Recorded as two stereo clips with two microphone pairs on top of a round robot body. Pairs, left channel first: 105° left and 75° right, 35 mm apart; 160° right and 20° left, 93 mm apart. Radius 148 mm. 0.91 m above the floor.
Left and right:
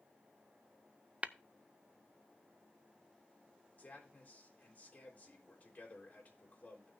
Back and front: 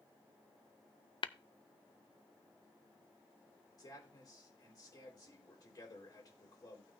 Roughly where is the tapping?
Behind right.